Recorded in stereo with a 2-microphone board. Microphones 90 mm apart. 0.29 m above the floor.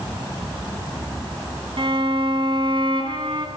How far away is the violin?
About 1.5 m.